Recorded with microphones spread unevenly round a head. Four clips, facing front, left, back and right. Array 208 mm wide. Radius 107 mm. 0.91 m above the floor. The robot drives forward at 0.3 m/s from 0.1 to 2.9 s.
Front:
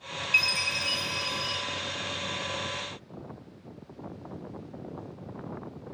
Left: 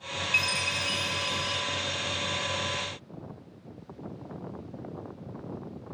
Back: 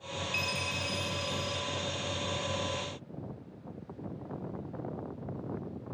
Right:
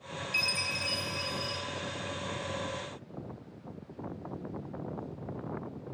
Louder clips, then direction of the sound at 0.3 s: Left 5 dB, front 6 dB; 5° left.